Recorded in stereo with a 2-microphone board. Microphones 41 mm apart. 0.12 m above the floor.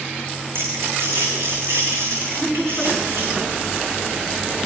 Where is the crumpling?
65° right (ahead or behind), 8 m.